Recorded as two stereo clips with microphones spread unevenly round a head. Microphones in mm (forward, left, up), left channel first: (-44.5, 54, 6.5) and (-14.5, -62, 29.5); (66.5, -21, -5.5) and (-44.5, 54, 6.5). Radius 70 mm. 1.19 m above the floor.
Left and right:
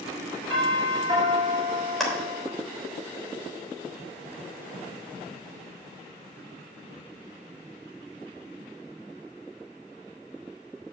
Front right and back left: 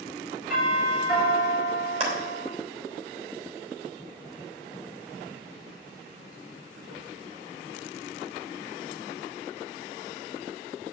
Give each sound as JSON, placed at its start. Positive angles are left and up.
{"t": 0.5, "sound": "a doorbell", "azimuth_deg": -130, "distance_m": 6.5}
{"t": 2.0, "sound": "a clap", "azimuth_deg": -165, "distance_m": 3.0}